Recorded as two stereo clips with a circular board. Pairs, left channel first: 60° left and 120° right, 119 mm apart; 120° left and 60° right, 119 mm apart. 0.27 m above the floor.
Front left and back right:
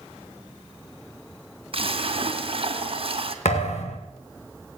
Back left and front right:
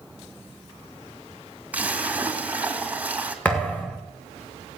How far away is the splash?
About 2.0 m.